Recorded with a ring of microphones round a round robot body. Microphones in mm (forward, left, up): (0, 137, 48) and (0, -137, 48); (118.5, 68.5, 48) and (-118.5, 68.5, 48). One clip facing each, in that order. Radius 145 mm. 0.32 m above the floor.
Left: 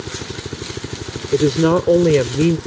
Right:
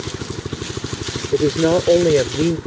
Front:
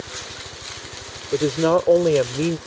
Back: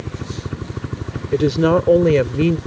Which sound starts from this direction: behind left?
A woman speaking, at 1.3 s.